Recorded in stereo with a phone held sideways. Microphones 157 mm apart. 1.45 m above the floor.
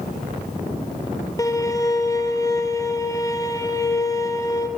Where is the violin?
20° left (ahead or behind), 0.8 m.